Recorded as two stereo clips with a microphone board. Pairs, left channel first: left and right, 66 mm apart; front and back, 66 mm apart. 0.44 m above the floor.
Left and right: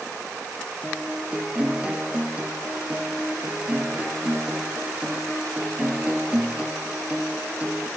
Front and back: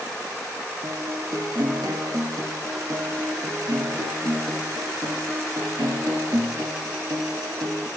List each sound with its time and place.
0.8 s a guitar: 160° right, 3 m